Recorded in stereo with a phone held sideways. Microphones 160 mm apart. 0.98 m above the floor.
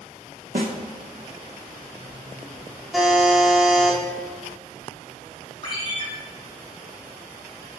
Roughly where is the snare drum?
Right.